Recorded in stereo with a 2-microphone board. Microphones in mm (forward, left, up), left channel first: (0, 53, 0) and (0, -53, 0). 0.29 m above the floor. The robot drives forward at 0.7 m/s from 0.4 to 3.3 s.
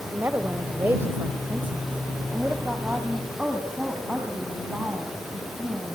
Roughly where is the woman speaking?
Centre.